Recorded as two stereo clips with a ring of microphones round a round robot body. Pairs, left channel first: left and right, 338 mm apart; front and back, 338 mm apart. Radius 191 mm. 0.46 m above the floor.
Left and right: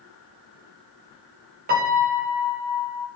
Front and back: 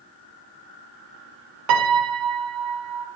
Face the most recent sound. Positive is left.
turn(degrees=-155)